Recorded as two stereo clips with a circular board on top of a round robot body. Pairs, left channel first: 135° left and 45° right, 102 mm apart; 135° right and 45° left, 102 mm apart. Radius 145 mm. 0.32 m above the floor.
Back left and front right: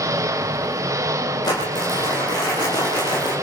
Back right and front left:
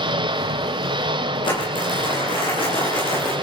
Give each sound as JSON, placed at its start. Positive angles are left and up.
{"t": 0.0, "sound": "an engine running", "azimuth_deg": 10, "distance_m": 2.5}
{"t": 1.4, "sound": "crumpling", "azimuth_deg": -175, "distance_m": 9.0}